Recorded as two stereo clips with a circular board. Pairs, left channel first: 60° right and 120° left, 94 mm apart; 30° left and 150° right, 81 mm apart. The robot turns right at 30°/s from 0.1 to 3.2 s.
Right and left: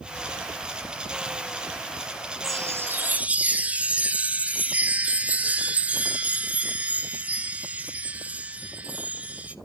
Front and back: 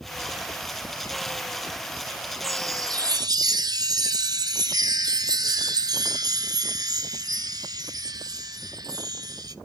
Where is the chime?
170° left, 0.5 m; by 9.6 s 165° right, 0.5 m.